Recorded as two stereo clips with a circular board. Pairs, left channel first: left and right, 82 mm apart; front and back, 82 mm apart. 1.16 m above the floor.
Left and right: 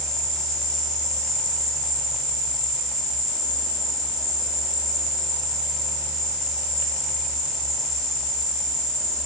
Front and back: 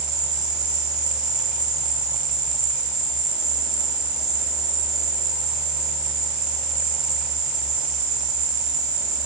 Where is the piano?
I don't hear a piano.